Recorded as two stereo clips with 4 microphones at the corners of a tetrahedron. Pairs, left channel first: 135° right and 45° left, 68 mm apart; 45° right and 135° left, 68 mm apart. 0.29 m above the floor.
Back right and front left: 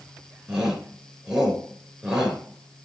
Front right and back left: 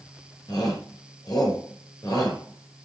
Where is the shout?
35° right, 5.5 m.